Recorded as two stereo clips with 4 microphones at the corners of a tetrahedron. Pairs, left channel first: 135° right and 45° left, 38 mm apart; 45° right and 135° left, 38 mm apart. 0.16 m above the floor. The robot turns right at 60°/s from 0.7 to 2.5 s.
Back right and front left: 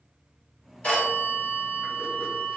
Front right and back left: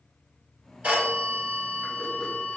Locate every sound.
0.8 s a phone ringing: 175° left, 1.3 m; by 2.6 s 90° right, 1.3 m